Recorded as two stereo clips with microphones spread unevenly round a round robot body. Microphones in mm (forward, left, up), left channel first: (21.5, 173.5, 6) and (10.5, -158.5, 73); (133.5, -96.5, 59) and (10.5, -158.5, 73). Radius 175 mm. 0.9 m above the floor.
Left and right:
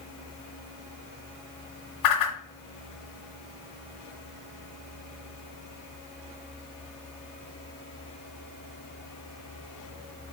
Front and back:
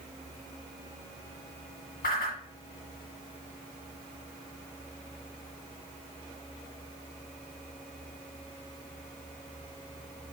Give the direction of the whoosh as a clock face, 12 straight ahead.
10 o'clock.